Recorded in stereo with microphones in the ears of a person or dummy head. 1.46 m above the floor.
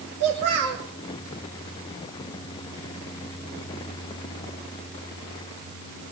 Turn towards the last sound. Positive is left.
turn(degrees=-50)  # may be behind; listen again after turning